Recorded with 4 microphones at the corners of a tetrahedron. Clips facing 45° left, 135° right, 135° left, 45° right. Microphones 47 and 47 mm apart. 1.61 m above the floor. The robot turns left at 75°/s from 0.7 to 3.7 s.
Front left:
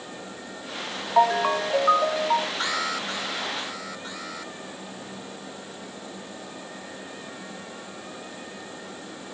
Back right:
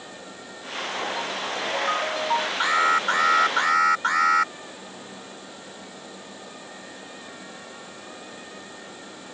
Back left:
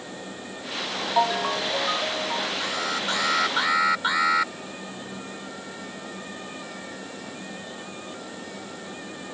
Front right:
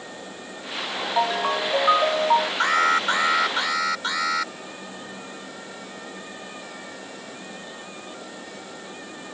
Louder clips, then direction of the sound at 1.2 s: Front left 9 dB, even; 50° left.